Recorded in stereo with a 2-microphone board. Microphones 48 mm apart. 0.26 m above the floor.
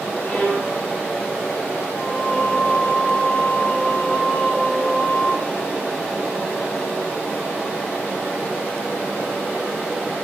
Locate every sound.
0.2 s a violin: 35° left (ahead or behind), 6 m
1.9 s singing: 35° left (ahead or behind), 2.5 m